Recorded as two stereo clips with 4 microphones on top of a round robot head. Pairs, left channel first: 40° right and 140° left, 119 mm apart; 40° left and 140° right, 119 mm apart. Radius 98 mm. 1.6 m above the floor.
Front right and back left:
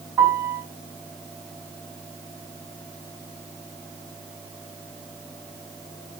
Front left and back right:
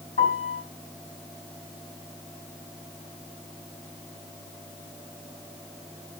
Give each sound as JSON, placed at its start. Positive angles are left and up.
{"t": 0.2, "sound": "a piano", "azimuth_deg": 65, "distance_m": 4.5}